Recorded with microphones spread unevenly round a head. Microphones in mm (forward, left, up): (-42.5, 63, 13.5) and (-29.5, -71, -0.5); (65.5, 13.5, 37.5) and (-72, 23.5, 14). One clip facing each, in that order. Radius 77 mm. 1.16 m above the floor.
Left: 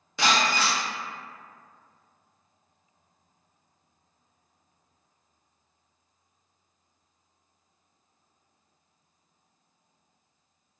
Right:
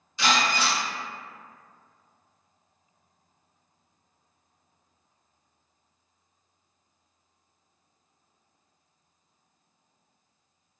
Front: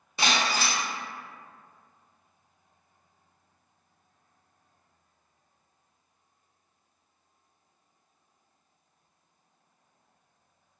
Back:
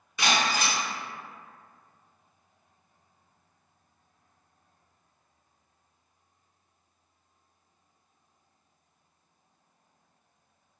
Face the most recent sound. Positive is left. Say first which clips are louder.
# even, back 1 dB
turn(degrees=50)